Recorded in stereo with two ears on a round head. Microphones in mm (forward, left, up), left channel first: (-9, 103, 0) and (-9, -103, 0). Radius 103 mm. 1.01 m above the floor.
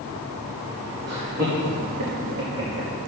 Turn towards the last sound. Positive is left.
turn(degrees=-30)  # may be behind; listen again after turning